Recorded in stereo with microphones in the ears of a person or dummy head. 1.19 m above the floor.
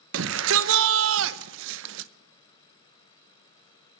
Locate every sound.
0.1 s a shout: 70° right (ahead or behind), 0.8 m